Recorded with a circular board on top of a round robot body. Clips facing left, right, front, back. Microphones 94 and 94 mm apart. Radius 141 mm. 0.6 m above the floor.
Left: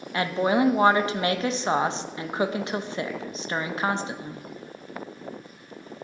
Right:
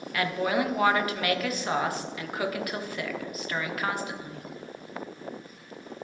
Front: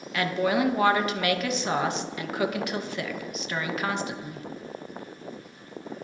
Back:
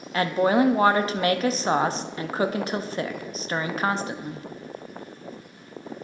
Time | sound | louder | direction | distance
0.1 | a woman speaking | left 4 dB, back 4 dB | 140° left | 0.7 m